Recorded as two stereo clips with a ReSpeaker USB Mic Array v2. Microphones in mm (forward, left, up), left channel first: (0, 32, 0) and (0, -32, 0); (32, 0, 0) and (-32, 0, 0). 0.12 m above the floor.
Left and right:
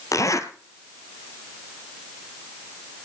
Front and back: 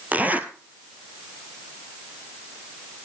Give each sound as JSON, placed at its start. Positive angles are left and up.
{"t": 0.1, "sound": "a zipper", "azimuth_deg": 115, "distance_m": 1.4}